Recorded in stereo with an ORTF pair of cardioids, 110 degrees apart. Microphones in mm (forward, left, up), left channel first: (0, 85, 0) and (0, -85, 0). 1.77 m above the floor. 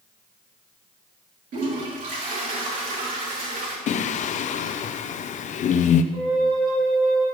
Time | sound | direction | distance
1.5 | a toilet flushing | 55° right | 3 m
3.9 | singing | 50° left | 0.7 m
6.1 | a flute | 30° right | 5.5 m